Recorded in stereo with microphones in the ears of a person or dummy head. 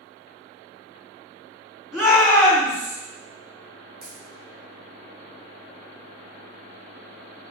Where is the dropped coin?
55° right (ahead or behind), 3 m.